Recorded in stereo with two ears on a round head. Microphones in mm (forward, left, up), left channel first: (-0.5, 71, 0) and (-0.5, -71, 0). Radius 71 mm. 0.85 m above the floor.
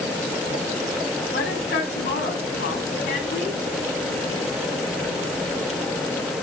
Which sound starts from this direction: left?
A woman speaking, at 1.3 s.